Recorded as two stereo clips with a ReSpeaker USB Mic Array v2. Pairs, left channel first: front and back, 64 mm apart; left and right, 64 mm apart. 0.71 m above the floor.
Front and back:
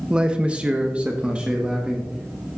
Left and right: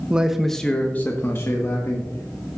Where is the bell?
No bell in this recording.